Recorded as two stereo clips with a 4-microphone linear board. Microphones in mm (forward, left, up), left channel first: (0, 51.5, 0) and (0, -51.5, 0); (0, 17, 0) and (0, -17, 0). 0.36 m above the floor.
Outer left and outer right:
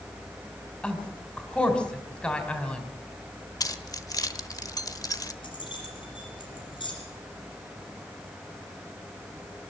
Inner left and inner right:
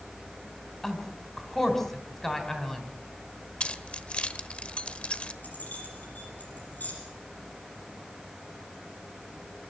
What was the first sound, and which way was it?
A woman speaking, 10° left (ahead or behind).